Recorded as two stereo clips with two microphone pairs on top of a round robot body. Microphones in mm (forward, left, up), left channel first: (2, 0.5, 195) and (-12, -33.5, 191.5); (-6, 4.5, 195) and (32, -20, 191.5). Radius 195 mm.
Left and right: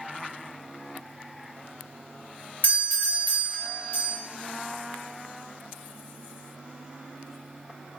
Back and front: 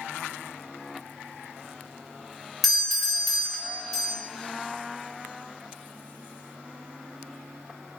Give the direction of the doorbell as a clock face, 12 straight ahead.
10 o'clock.